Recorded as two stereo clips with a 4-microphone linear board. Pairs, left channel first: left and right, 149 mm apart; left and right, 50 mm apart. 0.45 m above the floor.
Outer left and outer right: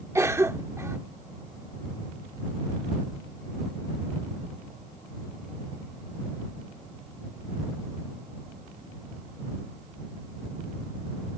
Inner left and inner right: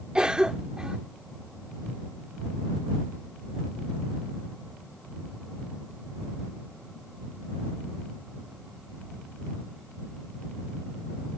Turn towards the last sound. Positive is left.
turn(degrees=-20)  # may be behind; listen again after turning